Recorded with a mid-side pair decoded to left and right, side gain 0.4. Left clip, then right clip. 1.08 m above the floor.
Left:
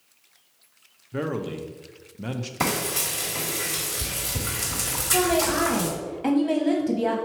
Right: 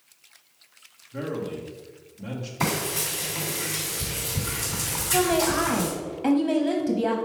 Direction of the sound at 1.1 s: 65° left.